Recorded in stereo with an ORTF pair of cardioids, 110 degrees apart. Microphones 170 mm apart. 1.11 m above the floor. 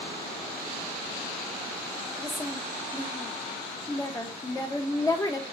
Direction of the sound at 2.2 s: 15° left.